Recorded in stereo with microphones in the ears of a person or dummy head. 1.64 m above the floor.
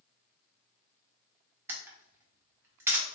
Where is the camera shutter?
10° right (ahead or behind), 0.8 m.